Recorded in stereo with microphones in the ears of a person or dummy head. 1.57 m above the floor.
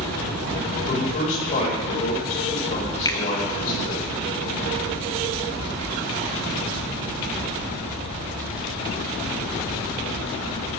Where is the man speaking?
40° left (ahead or behind), 8.5 m.